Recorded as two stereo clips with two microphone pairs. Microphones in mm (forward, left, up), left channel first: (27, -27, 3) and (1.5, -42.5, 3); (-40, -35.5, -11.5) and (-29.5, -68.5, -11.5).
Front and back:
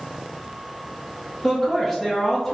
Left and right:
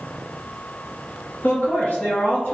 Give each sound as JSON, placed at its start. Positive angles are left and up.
{"t": 1.4, "sound": "a man speaking", "azimuth_deg": 110, "distance_m": 0.7}